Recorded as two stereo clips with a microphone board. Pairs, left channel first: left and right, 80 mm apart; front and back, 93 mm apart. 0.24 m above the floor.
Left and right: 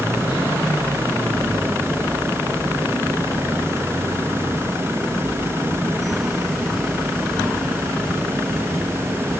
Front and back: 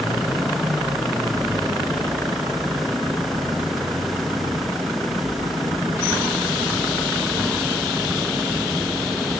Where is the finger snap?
I don't hear a finger snap.